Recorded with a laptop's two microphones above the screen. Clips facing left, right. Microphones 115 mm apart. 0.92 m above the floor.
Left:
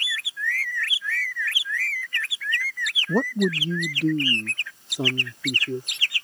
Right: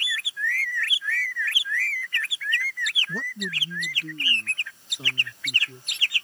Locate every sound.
3.1 s a man speaking: 55° left (ahead or behind); by 5.9 s 75° left (ahead or behind)